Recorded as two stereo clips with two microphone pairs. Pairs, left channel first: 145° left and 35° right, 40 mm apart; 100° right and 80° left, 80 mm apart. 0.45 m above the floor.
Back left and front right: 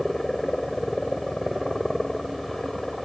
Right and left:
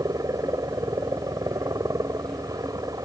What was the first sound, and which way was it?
A helicopter, 65° left.